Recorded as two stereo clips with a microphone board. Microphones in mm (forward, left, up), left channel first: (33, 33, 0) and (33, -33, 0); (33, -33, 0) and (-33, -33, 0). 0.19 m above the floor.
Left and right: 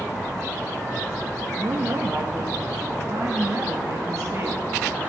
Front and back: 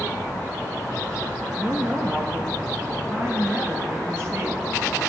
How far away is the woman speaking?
About 1.9 m.